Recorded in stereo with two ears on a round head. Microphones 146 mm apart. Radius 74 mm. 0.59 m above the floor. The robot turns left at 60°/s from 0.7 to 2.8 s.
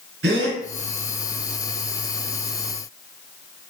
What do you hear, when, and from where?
0.2 s a gasp: 85° right, 2.5 m